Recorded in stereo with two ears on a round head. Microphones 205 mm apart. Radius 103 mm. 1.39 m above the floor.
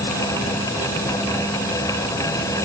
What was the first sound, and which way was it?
Only background noise.